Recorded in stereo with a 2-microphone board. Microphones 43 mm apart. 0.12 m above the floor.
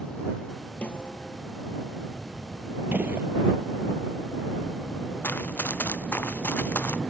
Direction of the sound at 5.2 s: 50° left (ahead or behind).